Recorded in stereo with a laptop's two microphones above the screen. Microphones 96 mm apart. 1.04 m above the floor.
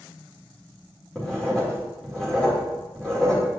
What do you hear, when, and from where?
1.1 s writing: 5° left (ahead or behind), 2.0 m